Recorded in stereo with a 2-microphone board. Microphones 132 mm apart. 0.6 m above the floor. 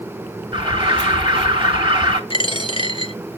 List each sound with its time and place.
0.5 s an alarm: 40° right (ahead or behind), 2 m
2.3 s a dropped coin: 40° left (ahead or behind), 0.7 m